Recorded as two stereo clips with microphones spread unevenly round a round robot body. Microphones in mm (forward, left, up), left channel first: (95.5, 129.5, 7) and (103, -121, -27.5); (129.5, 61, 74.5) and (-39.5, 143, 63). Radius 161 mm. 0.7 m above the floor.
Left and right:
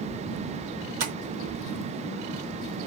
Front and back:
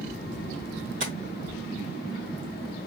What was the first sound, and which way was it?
Tapping, 140° right.